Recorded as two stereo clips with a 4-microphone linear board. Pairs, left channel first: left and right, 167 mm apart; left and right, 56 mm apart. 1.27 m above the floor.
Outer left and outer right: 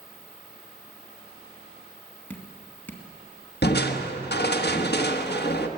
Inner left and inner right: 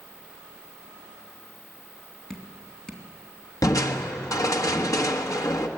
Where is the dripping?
10° left (ahead or behind), 2.5 m.